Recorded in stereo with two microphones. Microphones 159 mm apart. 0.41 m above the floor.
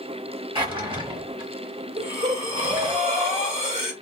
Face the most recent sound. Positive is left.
turn(degrees=-40)  # may be behind; listen again after turning